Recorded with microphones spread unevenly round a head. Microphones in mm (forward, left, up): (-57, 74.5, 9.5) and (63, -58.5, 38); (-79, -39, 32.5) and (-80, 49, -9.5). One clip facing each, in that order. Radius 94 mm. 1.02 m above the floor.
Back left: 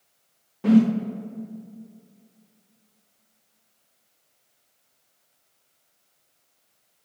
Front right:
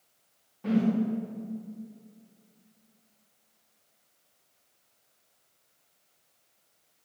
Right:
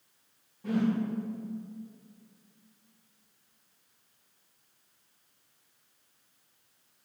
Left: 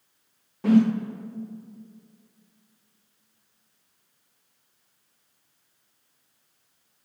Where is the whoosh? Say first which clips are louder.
Back left 8 dB, left 10 dB; 105° left, 0.6 m.